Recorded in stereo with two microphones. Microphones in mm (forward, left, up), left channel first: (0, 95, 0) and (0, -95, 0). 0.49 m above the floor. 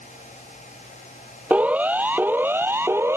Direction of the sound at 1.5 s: 5° right (ahead or behind).